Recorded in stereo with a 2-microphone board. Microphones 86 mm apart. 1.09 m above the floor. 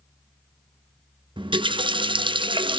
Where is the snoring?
I don't hear snoring.